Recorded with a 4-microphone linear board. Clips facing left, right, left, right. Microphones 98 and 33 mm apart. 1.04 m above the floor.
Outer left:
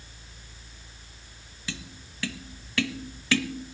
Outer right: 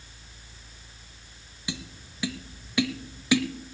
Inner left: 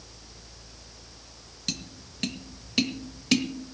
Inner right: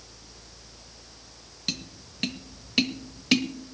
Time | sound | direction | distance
1.7 | tapping | 15° right (ahead or behind) | 0.8 m